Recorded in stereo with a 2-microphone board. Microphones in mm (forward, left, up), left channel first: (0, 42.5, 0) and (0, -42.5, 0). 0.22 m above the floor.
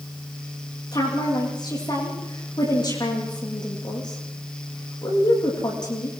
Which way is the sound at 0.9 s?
50° left (ahead or behind).